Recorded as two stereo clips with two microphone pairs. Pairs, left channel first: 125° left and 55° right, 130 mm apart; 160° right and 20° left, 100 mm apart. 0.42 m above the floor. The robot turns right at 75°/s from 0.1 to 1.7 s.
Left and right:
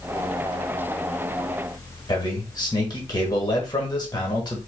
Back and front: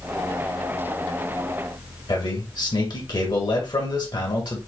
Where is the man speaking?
175° left, 1.5 m.